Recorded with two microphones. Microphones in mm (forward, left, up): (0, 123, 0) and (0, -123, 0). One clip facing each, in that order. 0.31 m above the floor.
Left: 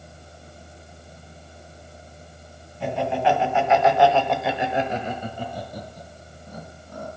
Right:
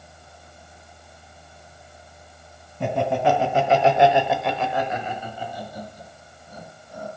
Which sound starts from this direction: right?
Laughter, at 2.8 s.